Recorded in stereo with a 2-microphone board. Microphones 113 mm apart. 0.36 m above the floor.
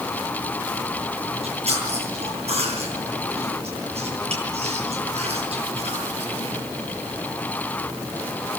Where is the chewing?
80° right, 9.5 m.